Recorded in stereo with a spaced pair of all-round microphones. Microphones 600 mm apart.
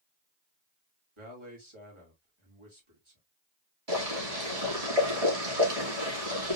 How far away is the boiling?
About 2.5 m.